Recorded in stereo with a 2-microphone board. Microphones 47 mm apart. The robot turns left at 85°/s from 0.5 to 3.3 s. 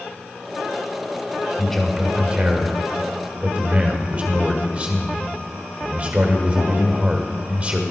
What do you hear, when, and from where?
1.6 s a man speaking: 20° left, 1.5 m; by 7.8 s 125° right, 1.5 m